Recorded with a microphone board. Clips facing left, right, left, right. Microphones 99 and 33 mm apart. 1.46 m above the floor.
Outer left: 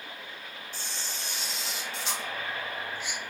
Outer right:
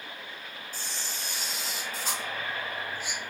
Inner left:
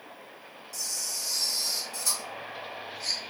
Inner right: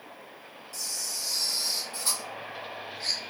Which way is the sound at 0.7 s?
40° right (ahead or behind).